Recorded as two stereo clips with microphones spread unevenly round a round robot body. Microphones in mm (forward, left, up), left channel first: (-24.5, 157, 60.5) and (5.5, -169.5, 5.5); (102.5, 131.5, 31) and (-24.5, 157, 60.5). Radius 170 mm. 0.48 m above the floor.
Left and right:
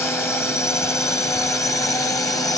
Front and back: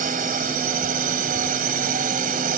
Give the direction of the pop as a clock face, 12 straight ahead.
No pop in this recording.